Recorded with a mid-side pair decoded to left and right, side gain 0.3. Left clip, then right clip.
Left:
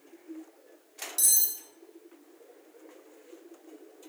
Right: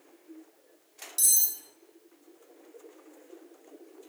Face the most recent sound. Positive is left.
turn(degrees=-5)